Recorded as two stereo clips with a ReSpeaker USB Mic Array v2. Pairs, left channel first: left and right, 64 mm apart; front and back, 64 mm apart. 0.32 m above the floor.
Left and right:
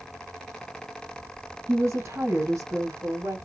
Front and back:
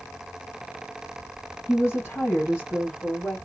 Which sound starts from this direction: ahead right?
A woman speaking, at 1.7 s.